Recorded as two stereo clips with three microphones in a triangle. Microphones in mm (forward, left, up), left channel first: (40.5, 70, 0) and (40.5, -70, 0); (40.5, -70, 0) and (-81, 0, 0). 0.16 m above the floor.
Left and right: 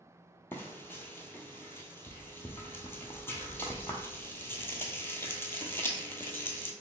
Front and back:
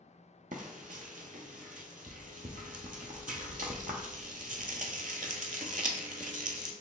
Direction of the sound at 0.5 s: 165° left.